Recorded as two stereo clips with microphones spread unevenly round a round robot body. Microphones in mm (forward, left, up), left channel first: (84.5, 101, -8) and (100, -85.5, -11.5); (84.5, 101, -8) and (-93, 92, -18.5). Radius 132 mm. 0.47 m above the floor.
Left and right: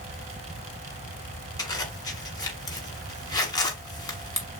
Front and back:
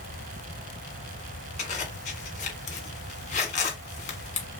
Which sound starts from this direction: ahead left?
A zipper, at 1.6 s.